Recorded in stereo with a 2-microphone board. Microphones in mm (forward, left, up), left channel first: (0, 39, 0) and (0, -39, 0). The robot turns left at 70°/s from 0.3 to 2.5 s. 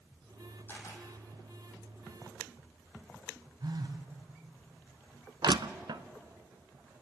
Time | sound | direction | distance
0.7 | a camera shutter | 25° left (ahead or behind) | 4 m
3.6 | a phone buzzing | 60° right (ahead or behind) | 1.6 m
5.4 | crushing | 70° right (ahead or behind) | 0.6 m